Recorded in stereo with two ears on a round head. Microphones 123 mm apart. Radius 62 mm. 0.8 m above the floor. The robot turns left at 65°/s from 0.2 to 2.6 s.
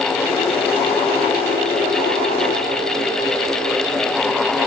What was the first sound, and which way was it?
Only background noise.